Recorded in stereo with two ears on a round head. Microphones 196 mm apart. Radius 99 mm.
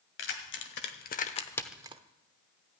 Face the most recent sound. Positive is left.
turn(degrees=-30)  # may be behind; listen again after turning